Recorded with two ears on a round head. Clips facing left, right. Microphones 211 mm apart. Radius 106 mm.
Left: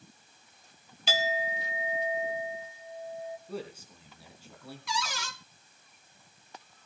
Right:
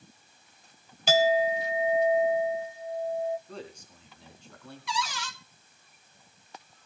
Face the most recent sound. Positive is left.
turn(degrees=40)  # may be behind; listen again after turning